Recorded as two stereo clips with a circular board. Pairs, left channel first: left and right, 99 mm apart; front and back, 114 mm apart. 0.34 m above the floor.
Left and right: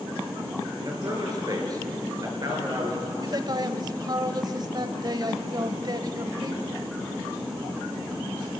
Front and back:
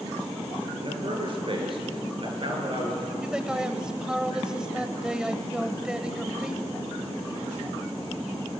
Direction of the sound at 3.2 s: 100° right.